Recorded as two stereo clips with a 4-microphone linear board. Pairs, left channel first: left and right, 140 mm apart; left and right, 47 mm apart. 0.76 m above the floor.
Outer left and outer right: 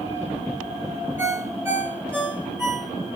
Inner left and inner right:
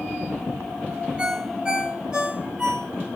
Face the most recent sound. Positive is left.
turn(degrees=-15)  # may be behind; listen again after turning